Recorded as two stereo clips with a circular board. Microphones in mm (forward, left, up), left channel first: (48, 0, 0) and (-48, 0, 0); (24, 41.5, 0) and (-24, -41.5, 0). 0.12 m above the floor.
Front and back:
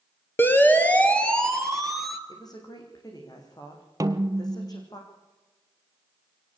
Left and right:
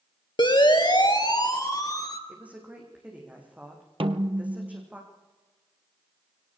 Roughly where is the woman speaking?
Ahead right.